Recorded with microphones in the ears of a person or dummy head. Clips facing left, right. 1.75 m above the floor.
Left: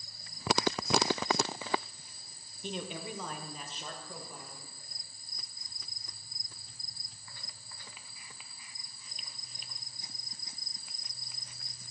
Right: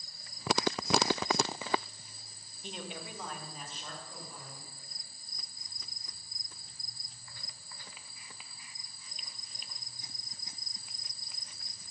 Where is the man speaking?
85° left, 1.2 m; by 4.6 s 50° left (ahead or behind), 3 m.